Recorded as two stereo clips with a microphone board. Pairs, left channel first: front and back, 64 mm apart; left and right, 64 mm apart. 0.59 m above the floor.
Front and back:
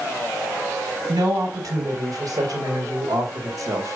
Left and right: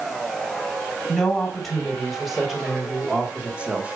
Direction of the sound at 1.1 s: 170° left.